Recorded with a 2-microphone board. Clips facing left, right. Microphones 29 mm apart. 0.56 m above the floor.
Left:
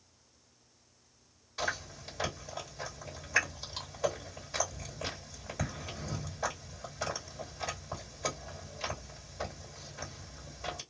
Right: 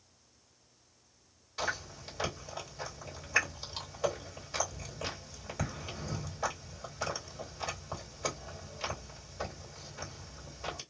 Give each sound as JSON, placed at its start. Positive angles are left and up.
{"t": 1.6, "sound": "chewing", "side_deg": -5, "distance_m": 1.9}